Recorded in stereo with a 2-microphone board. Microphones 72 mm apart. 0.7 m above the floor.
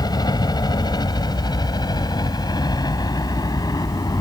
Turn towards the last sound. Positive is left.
turn(degrees=60)  # may be behind; listen again after turning